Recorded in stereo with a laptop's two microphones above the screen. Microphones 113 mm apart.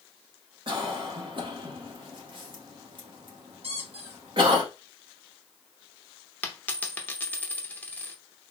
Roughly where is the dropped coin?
Centre.